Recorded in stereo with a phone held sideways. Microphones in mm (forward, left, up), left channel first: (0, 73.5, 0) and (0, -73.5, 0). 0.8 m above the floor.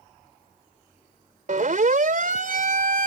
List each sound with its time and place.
1.5 s a siren: 60° right (ahead or behind); by 3.1 s 70° right (ahead or behind)